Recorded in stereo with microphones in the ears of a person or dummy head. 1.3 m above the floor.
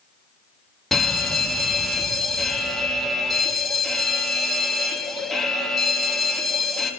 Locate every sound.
0.9 s a fire alarm: centre (ahead or behind), 1.3 m